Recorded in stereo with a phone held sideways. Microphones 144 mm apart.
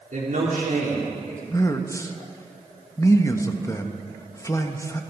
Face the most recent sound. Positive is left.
turn(degrees=20)  # may be behind; listen again after turning